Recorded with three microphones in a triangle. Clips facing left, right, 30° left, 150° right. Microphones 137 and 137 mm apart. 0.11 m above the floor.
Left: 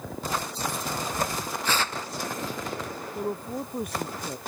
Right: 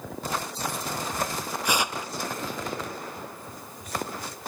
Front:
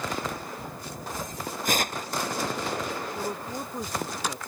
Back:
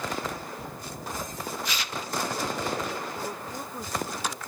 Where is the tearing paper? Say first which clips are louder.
Right 2 dB, front 6 dB; 15° right.